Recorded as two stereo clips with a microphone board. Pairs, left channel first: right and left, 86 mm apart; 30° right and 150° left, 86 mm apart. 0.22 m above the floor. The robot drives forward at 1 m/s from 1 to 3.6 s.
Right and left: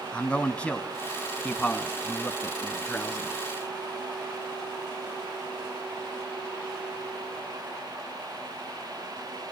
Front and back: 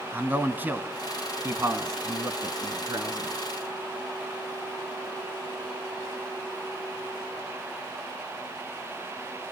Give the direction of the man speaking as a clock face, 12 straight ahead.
5 o'clock.